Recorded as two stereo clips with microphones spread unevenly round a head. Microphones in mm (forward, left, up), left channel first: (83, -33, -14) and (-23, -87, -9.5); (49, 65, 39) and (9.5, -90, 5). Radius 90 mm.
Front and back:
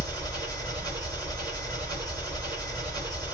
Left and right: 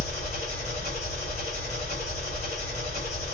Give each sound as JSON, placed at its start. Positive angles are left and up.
{"t": 0.0, "sound": "an engine running", "azimuth_deg": 130, "distance_m": 3.0}